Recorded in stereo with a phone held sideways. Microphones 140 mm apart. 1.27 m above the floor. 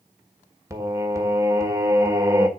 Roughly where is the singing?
Right.